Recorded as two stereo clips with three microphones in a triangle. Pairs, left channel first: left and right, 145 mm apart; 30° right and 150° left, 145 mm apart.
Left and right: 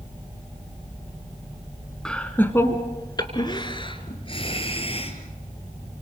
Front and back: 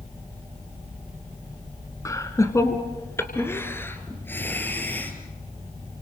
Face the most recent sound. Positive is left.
turn(degrees=45)